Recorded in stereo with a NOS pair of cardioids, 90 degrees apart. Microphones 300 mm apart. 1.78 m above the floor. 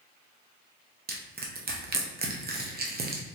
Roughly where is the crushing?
Ahead right.